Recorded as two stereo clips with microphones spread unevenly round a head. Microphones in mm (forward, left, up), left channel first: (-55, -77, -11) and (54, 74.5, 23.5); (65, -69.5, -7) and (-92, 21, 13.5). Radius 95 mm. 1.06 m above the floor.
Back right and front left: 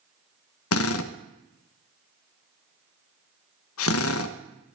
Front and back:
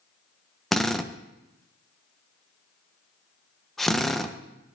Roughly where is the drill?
Behind right.